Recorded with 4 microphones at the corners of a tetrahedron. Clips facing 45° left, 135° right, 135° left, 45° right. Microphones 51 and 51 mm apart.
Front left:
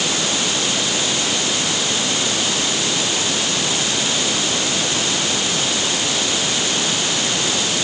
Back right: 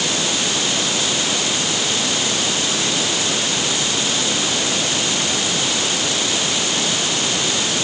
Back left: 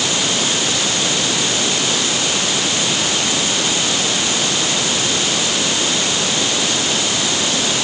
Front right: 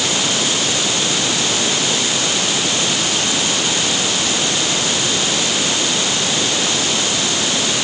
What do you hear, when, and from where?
Only background noise.